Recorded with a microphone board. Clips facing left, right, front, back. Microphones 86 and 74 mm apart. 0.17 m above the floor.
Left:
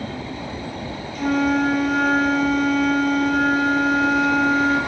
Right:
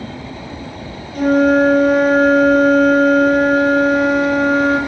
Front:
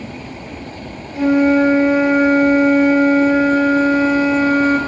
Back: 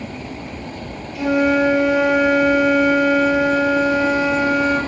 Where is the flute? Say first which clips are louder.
Right 8 dB, front 4 dB; 50° right, 1.9 m.